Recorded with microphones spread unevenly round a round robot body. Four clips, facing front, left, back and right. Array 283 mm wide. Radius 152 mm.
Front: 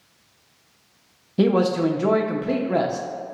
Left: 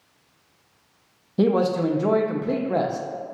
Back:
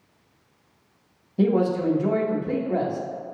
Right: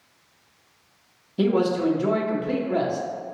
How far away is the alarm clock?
I don't hear an alarm clock.